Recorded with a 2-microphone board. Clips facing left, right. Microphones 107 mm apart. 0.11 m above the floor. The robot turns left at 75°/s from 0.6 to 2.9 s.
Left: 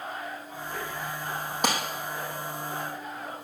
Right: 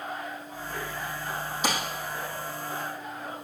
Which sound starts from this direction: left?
A clap, at 1.6 s.